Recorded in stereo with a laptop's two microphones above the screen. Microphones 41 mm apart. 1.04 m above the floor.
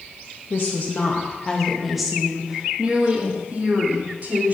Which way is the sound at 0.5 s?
55° left (ahead or behind).